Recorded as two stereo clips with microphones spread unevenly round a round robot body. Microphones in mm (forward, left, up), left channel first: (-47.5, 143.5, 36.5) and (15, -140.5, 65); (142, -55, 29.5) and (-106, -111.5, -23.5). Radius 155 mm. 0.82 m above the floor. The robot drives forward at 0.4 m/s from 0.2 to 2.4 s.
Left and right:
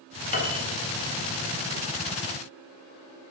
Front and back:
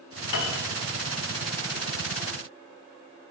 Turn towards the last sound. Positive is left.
turn(degrees=50)